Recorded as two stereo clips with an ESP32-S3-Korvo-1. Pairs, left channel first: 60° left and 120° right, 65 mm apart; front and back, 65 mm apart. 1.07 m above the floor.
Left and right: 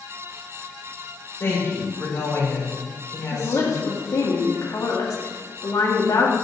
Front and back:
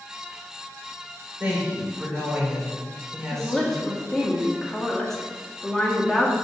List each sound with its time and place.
1.4 s a woman speaking: 110° left, 4 m
3.3 s a woman speaking: 85° left, 2 m